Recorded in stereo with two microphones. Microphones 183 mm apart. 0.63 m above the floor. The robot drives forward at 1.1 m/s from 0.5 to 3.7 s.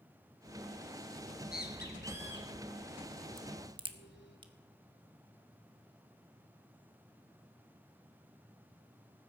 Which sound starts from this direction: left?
A bird, at 1.2 s.